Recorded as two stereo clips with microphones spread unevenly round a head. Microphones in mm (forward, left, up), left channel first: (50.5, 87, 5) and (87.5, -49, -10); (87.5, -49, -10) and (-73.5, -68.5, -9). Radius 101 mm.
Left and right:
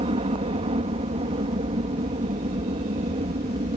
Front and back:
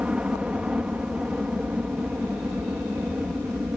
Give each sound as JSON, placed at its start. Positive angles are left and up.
{"t": 0.0, "sound": "a helicopter", "azimuth_deg": -90}